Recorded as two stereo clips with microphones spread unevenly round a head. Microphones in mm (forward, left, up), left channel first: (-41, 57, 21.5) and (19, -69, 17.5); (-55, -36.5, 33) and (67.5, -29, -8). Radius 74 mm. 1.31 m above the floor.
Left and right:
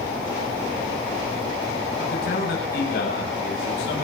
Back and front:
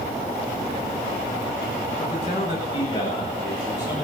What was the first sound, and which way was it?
A man speaking, 135° left.